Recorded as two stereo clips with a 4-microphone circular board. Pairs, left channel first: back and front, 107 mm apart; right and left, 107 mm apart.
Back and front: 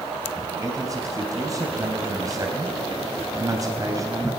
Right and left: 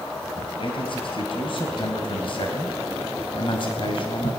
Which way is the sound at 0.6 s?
55° right.